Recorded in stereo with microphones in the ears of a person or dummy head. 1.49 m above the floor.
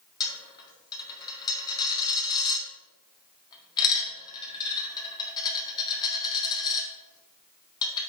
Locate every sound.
0.2 s a dropped coin: 25° left (ahead or behind), 1.5 m